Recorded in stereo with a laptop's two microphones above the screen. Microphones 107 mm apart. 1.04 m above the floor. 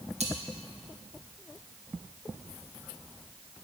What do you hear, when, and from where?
0.2 s cutlery clinking: 80° right, 0.8 m